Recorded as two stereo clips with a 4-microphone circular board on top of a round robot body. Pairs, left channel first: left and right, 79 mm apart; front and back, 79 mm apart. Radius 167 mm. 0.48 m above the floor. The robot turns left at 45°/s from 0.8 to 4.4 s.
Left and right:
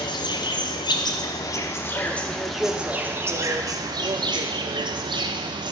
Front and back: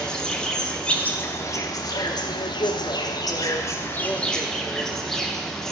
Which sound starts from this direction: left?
An insect, at 0.0 s.